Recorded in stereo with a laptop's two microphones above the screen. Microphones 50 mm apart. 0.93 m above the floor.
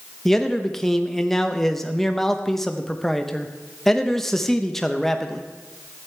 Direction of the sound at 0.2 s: 10° left (ahead or behind).